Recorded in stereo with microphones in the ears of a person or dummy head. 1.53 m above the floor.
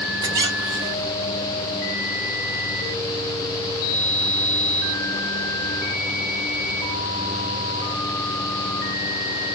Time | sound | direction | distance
0.2 | a squeak | 20° right (ahead or behind) | 0.6 m